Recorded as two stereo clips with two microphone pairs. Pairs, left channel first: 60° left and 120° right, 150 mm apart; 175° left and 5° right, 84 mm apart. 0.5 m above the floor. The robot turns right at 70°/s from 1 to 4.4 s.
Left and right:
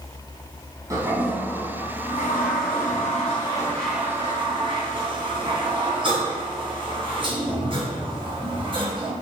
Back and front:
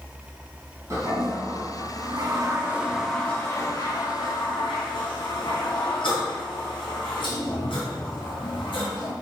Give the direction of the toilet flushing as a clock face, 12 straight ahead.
2 o'clock.